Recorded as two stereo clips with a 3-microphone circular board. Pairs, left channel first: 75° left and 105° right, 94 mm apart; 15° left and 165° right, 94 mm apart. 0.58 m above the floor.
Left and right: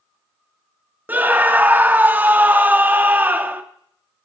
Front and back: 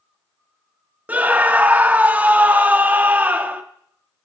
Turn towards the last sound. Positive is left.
turn(degrees=-130)